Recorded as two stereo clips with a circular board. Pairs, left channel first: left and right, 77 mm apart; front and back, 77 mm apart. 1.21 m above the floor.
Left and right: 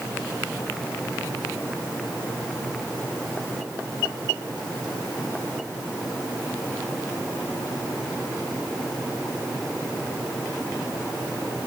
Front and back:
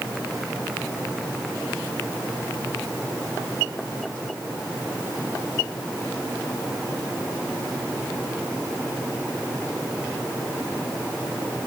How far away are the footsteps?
I don't hear footsteps.